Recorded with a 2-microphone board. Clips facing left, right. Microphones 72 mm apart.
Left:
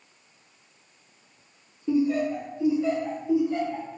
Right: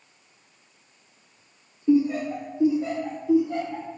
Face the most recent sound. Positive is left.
turn(degrees=-65)  # may be behind; listen again after turning